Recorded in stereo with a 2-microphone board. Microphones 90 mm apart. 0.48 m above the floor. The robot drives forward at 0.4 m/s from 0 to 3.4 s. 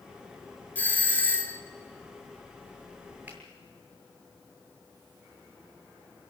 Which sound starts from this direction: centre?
A finger snap, at 3.3 s.